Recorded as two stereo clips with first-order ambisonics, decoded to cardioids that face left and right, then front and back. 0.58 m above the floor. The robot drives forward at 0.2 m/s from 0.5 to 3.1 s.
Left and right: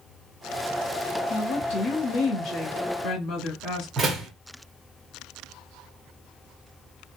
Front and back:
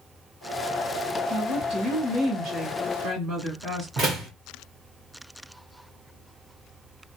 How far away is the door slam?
About 0.7 m.